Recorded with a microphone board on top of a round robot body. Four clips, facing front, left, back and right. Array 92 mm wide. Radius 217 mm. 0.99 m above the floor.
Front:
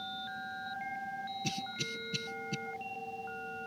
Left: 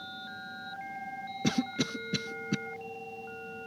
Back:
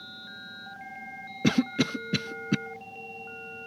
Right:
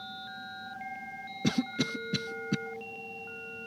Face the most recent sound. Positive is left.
turn(degrees=180)